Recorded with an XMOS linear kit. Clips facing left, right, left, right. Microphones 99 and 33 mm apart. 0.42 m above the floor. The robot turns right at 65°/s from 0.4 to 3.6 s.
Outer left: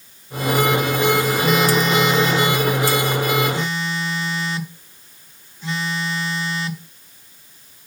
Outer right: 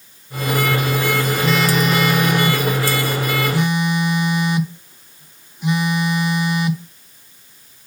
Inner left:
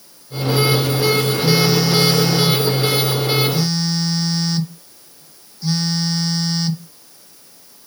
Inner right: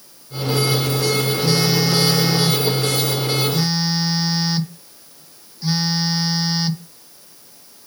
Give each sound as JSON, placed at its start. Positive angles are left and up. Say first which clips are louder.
{"t": 1.4, "sound": "a phone buzzing", "louder": "outer right 1 dB, inner left 2 dB", "side_deg": 5, "distance_m": 0.7}